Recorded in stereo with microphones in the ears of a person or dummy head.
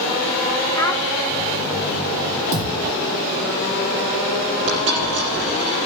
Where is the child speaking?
15° left (ahead or behind), 0.7 m.